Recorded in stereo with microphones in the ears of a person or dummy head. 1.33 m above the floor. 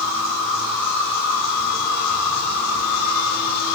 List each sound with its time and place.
0.0 s an insect: 75° left (ahead or behind), 3 m